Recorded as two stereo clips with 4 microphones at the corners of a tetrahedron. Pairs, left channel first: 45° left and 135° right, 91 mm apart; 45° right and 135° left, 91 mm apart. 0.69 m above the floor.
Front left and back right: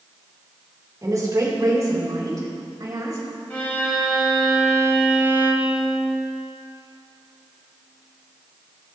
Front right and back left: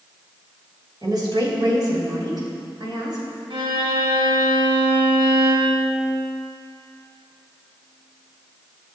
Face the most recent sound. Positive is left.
turn(degrees=120)